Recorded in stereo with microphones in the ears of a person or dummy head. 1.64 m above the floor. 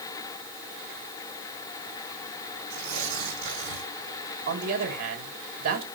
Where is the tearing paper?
70° right (ahead or behind), 8.5 m.